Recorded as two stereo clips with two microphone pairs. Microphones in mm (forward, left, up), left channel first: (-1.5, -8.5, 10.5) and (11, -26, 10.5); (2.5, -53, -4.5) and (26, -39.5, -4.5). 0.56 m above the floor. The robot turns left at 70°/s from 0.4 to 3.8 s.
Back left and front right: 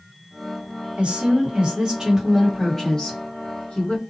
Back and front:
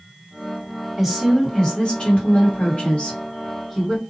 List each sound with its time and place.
1.0 s a woman speaking: 40° right, 1.5 m; by 4.0 s 120° left, 1.5 m